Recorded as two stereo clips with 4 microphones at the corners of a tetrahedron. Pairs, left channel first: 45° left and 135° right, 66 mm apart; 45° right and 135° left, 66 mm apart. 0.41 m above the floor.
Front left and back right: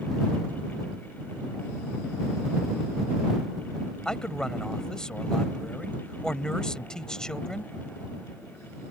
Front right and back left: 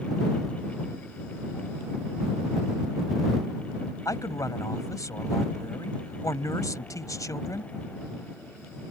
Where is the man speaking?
35° right.